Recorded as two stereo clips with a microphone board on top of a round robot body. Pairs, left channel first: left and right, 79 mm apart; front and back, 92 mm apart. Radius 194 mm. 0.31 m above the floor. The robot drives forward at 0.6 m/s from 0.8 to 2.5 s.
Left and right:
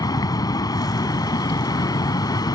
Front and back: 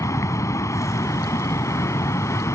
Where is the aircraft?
55° left.